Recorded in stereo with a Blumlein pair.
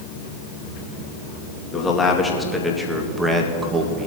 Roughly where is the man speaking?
Ahead.